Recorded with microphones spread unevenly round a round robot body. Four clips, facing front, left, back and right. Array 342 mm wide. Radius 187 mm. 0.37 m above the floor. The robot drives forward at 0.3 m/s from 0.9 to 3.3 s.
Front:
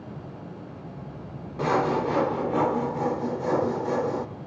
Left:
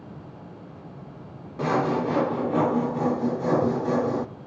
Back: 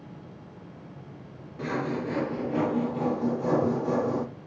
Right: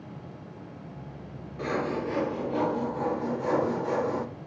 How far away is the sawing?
About 0.9 m.